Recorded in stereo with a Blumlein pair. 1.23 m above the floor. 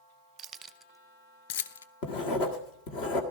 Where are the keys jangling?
25° right, 0.8 m; by 1.9 s 70° left, 0.7 m.